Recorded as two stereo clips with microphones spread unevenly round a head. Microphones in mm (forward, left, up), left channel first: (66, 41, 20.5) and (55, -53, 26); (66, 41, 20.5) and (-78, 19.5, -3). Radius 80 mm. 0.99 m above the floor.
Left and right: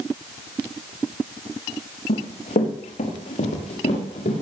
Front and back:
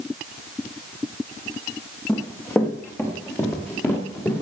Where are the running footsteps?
85° left, 4.5 m; by 4.4 s 80° left, 7.5 m.